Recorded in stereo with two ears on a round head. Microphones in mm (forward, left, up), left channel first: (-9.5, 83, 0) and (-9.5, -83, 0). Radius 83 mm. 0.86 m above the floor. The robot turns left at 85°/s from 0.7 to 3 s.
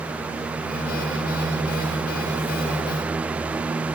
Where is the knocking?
I don't hear knocking.